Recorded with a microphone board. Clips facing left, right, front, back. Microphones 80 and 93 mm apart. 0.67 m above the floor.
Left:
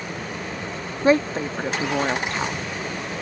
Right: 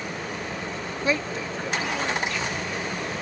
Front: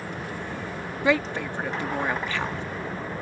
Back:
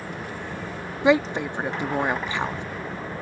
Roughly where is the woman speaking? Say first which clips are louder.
Left 9 dB, back 4 dB; behind left.